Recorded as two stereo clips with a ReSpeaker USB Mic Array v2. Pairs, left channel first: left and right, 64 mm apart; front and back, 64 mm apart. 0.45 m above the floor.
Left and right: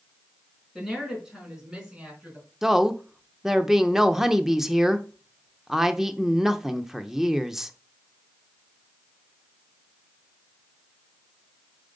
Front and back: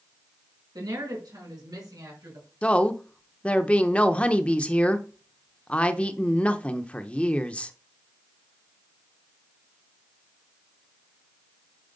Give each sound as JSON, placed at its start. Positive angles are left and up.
{"t": 0.8, "sound": "a woman speaking", "azimuth_deg": 180, "distance_m": 4.5}
{"t": 2.6, "sound": "a woman speaking", "azimuth_deg": -20, "distance_m": 0.7}